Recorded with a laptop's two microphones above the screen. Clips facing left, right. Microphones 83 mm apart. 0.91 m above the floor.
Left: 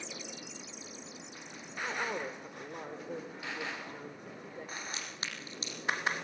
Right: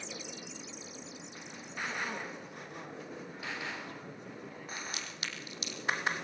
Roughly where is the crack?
Left.